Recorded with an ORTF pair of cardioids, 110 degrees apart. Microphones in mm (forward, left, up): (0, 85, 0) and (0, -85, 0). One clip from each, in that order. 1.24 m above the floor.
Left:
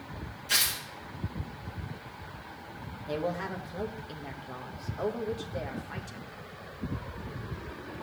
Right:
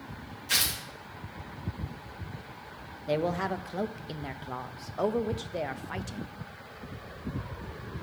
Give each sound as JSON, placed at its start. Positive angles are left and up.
{"t": 0.5, "sound": "tearing paper", "azimuth_deg": -10, "distance_m": 2.5}
{"t": 3.1, "sound": "a man speaking", "azimuth_deg": -30, "distance_m": 0.9}